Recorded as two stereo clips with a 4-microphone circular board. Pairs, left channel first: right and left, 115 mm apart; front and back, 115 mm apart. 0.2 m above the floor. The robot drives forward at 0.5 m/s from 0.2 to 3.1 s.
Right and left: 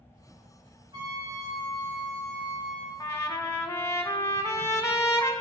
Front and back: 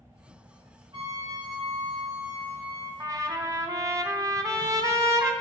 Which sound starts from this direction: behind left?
A trumpet, at 0.9 s.